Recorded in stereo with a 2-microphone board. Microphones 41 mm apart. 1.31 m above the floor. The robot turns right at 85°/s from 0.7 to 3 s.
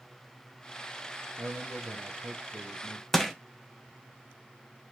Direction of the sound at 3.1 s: 5° left (ahead or behind).